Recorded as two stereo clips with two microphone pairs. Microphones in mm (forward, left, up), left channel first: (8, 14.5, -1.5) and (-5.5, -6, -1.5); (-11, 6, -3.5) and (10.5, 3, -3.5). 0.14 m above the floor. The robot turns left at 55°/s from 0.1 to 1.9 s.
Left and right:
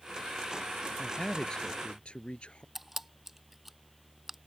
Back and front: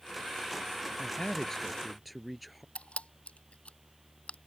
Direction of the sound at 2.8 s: 155° left.